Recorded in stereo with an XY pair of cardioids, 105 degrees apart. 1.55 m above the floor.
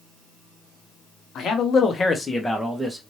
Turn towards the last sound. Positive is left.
turn(degrees=-5)